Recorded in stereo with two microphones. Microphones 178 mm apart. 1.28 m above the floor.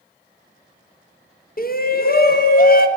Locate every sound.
1.6 s a shout: 55° left (ahead or behind), 0.6 m